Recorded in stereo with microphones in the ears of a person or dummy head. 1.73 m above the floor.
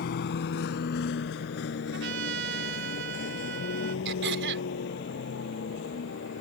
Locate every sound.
0.0 s a vehicle: 70° left (ahead or behind); by 6.4 s 80° left
1.9 s a trumpet: 75° right (ahead or behind)
4.0 s throat clearing: 75° right (ahead or behind)